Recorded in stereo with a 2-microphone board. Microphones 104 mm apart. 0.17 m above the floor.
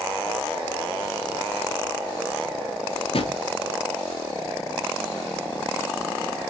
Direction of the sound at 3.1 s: 70° left (ahead or behind).